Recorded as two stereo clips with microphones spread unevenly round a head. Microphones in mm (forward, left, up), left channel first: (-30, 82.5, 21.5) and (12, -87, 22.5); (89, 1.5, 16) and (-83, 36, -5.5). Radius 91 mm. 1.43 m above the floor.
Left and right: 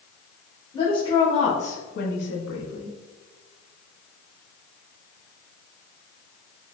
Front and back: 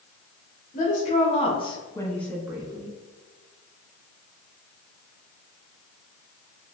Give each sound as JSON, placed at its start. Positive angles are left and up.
{"t": 0.7, "sound": "a woman speaking", "azimuth_deg": 35, "distance_m": 1.3}